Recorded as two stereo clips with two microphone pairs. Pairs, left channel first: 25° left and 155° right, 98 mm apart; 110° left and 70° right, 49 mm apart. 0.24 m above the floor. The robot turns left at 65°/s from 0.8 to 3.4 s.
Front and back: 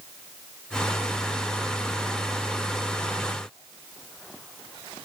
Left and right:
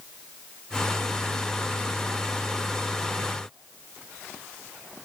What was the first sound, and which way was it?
Only background noise.